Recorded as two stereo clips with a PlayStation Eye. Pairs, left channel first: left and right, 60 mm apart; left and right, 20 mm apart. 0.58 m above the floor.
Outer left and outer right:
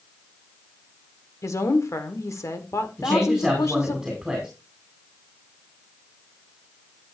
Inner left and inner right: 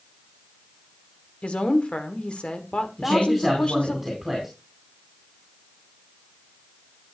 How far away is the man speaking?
About 3.5 m.